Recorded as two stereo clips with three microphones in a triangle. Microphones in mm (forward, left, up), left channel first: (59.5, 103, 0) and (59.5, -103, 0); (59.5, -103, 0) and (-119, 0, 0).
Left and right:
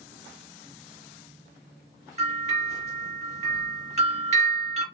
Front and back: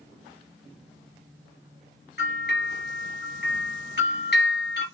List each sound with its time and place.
2.2 s a bell: 40° right, 2.5 m